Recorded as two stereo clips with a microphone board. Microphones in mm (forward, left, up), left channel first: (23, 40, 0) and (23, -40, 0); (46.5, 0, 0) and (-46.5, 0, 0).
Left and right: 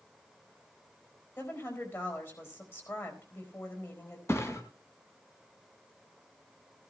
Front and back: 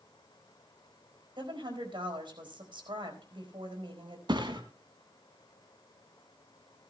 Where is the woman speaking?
150° left, 4 m.